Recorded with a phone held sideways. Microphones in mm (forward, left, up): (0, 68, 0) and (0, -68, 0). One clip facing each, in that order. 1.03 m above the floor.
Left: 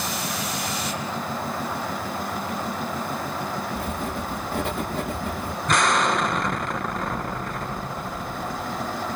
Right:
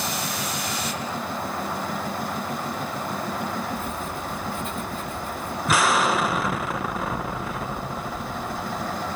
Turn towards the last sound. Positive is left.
turn(degrees=-5)  # may be behind; listen again after turning